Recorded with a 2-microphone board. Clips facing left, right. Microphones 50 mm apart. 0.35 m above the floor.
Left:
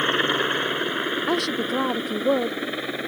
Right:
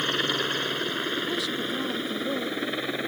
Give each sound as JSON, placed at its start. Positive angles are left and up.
{"t": 0.0, "sound": "a helicopter", "side_deg": 25}
{"t": 1.3, "sound": "a woman speaking", "side_deg": 65}